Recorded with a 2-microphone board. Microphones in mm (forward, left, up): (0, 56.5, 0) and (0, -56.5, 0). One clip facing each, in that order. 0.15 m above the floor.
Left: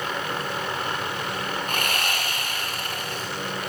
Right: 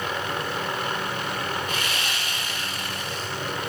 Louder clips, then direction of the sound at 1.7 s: Left 2 dB; 50° left (ahead or behind).